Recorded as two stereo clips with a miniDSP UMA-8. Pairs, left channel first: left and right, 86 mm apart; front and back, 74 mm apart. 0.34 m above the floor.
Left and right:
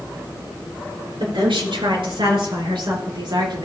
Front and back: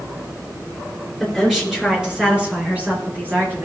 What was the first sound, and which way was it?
A woman speaking, 90° right.